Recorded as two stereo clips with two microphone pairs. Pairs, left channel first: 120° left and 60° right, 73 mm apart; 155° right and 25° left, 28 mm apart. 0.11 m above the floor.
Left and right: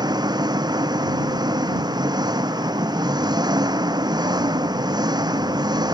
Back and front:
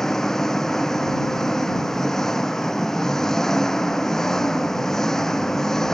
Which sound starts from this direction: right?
An engine running, at 0.0 s.